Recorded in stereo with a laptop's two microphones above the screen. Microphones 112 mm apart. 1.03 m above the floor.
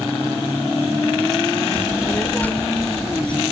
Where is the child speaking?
20° left (ahead or behind); by 3.4 s 10° left (ahead or behind).